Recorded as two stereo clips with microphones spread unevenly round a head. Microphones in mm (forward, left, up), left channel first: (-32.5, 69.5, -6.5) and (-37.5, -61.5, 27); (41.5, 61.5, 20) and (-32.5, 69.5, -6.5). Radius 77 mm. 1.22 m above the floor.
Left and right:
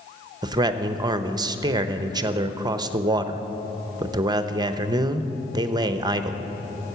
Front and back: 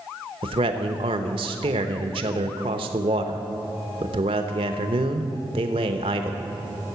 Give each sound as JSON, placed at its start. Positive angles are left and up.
{"t": 0.4, "sound": "a man speaking", "azimuth_deg": -150, "distance_m": 0.8}